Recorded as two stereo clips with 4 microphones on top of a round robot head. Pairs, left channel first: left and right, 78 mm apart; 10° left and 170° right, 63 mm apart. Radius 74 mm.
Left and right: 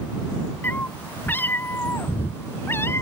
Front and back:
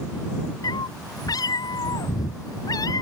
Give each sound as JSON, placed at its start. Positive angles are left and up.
{"t": 0.6, "sound": "a cat meowing", "azimuth_deg": 20}